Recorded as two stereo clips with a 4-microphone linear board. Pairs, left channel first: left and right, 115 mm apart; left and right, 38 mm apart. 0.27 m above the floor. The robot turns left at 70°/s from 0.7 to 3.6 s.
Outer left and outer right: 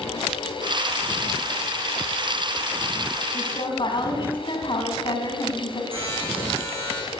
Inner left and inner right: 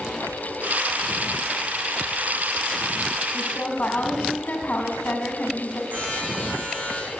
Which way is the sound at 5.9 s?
55° right (ahead or behind).